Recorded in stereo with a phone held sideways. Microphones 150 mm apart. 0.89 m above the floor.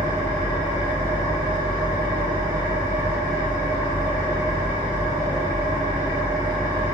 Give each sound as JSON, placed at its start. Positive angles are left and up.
{"t": 0.0, "sound": "an engine running", "side_deg": 25, "distance_m": 2.0}